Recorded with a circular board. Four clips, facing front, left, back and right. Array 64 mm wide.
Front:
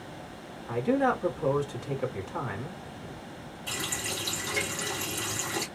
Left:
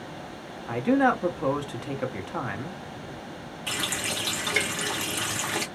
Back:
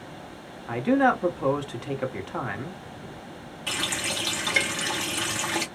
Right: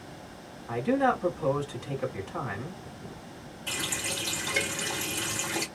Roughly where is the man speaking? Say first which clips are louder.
Left 3 dB, back 4 dB; behind left.